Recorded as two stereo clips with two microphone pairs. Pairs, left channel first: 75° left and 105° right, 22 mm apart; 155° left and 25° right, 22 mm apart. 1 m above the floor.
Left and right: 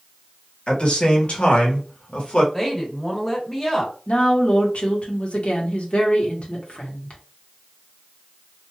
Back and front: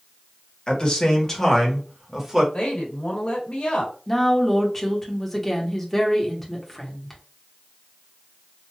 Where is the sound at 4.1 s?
75° left, 1.1 m.